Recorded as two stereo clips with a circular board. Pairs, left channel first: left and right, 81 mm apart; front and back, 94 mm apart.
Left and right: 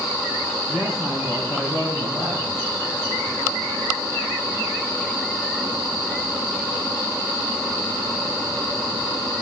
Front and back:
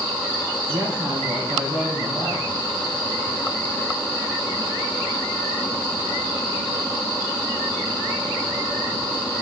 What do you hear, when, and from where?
0.7 s a woman speaking: 170° left, 2.5 m